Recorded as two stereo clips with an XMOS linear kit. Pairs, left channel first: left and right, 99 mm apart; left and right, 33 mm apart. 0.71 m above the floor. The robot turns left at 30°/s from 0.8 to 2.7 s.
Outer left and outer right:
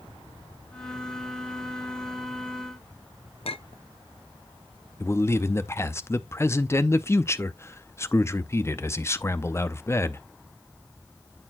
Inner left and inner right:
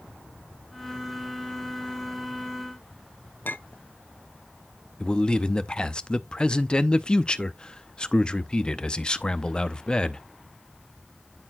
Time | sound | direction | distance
3.5 | a clink | 70° left (ahead or behind) | 0.5 m
5.0 | a man speaking | 30° left (ahead or behind) | 0.6 m